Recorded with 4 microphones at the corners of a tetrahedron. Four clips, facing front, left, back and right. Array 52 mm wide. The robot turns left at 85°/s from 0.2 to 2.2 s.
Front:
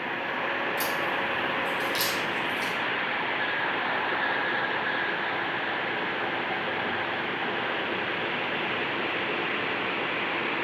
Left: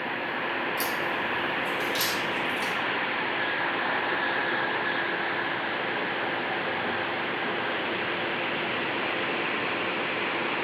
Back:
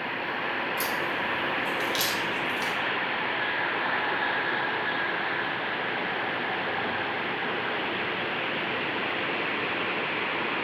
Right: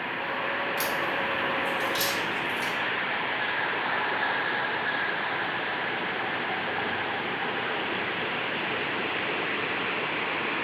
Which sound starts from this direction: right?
A crack, at 0.8 s.